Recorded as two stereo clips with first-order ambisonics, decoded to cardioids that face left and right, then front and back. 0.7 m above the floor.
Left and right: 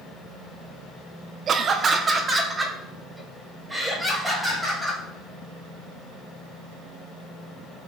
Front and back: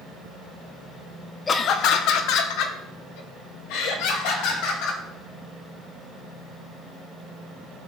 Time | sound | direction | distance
1.5 | laughter | 55° right | 0.6 m